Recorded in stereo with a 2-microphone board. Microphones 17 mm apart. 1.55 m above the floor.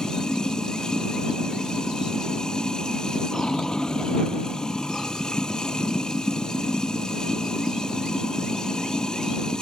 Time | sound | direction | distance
0.0 | running water | 50° left (ahead or behind) | ?